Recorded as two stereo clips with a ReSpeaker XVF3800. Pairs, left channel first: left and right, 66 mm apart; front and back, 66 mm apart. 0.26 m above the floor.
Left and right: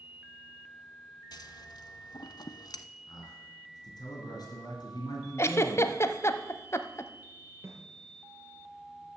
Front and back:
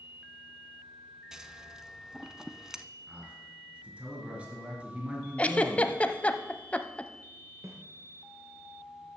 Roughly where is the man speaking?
Left.